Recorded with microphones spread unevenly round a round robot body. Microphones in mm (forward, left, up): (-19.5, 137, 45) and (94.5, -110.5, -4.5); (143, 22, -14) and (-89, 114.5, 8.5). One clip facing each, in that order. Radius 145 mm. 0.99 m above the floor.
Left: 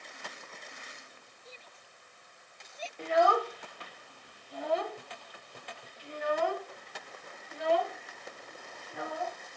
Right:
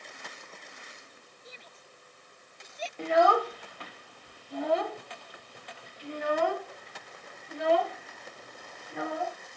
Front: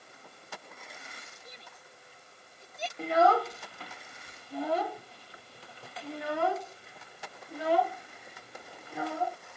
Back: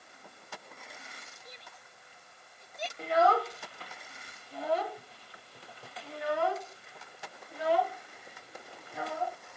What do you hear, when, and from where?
1.4 s a shout: 45° right
3.0 s a child speaking: 40° right